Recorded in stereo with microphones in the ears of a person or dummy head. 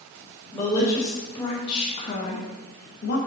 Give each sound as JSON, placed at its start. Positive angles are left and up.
{"t": 0.5, "sound": "a woman speaking", "side_deg": 15, "distance_m": 2.0}